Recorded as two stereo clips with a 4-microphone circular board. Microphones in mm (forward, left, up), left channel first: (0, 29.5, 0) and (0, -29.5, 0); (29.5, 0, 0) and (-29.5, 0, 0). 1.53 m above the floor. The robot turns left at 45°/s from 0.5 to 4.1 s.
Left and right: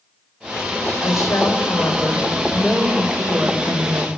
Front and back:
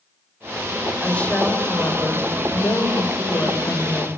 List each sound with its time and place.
1.0 s a woman speaking: 75° left, 6 m; by 4.1 s 65° right, 6 m